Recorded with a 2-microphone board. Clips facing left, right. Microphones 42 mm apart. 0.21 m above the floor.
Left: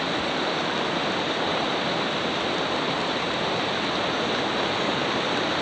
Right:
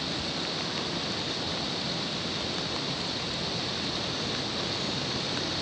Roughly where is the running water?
Left.